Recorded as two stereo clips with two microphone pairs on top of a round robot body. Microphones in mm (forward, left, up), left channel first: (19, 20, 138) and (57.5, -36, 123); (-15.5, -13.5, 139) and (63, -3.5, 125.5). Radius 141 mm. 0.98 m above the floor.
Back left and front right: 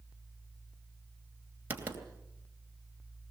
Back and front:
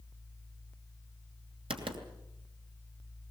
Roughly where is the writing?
Ahead.